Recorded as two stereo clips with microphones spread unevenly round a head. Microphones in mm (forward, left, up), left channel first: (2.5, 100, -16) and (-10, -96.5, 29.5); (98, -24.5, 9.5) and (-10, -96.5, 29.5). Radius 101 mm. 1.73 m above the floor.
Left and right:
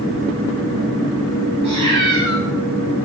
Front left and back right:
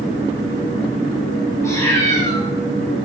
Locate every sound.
1.6 s a cat meowing: 35° right, 4 m